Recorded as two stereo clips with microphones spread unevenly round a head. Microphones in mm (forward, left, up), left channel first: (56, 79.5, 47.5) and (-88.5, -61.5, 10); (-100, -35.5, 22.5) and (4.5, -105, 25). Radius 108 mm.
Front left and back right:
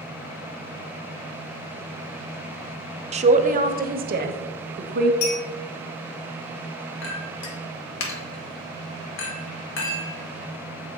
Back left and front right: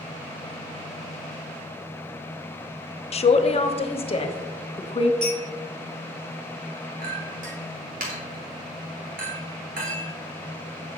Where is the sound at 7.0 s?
10° left, 1.3 m.